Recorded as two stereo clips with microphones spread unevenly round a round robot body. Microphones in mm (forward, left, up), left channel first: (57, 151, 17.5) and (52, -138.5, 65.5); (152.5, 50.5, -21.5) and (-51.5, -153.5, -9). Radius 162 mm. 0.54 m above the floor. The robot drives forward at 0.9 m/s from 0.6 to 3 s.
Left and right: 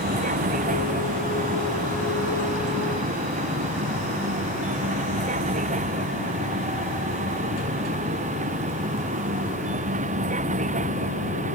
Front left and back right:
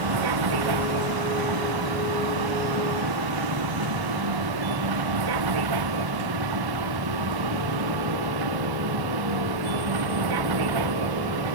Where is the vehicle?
160° right.